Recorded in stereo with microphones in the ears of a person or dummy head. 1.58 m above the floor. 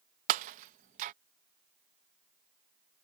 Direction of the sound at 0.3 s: 35° right (ahead or behind).